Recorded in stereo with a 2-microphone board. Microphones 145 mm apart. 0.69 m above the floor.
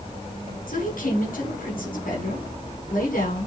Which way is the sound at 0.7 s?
75° left (ahead or behind).